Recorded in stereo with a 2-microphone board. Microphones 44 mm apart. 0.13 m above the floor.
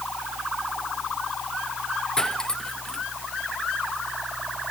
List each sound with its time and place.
2.2 s cutlery clinking: 15° left (ahead or behind)